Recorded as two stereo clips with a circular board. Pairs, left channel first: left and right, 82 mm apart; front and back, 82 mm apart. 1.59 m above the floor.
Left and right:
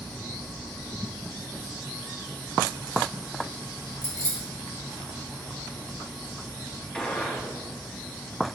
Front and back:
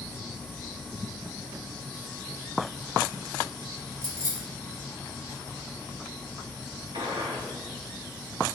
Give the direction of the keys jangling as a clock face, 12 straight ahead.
8 o'clock.